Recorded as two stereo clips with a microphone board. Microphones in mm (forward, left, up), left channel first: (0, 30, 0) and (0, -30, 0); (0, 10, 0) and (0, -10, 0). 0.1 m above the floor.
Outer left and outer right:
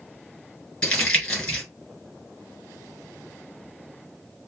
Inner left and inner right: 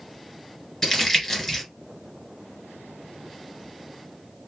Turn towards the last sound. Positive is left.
turn(degrees=15)  # may be behind; listen again after turning